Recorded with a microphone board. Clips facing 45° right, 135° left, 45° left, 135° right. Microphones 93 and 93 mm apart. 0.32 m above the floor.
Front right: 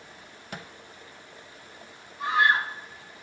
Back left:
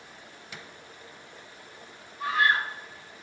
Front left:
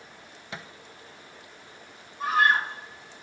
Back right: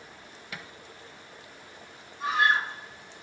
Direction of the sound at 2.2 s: 20° left.